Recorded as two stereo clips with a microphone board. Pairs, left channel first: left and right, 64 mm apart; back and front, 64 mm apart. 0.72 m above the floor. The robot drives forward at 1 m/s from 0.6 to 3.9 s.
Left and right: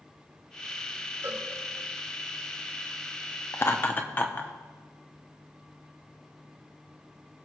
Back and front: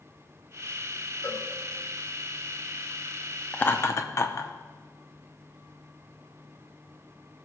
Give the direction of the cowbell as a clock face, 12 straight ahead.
4 o'clock.